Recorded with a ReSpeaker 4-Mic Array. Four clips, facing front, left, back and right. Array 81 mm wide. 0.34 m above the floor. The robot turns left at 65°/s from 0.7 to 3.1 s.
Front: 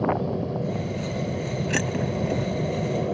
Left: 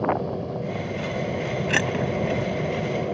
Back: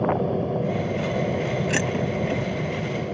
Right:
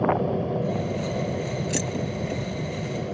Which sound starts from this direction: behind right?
An aircraft, at 0.0 s.